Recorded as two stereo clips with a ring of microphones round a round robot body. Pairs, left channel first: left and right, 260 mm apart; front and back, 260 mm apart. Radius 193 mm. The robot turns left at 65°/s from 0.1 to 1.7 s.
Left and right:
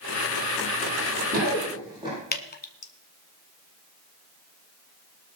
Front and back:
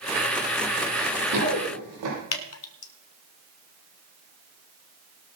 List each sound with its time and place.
0.9 s running footsteps: 120° right, 8.5 m; by 2.2 s 165° right, 8 m
2.3 s dripping: 35° left, 1.4 m